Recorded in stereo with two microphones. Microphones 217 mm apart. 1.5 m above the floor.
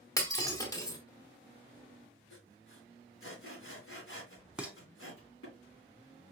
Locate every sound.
0.2 s breaking glass: 15° left (ahead or behind), 1.5 m
2.3 s sawing: 70° left (ahead or behind), 3.5 m
4.6 s dishes clattering: 5° right (ahead or behind), 0.6 m